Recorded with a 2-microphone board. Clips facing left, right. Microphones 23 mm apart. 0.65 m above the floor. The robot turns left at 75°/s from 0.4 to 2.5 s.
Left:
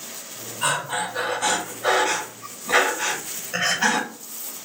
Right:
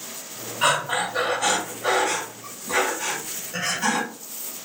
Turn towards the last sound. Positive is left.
turn(degrees=115)